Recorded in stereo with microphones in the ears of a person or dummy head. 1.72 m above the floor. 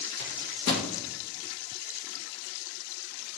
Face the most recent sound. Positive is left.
turn(degrees=65)  # may be behind; listen again after turning